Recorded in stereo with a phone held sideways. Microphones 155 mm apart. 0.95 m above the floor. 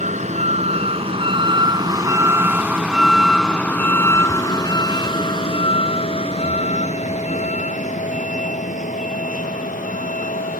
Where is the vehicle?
50° right (ahead or behind); by 10.6 s 60° left (ahead or behind).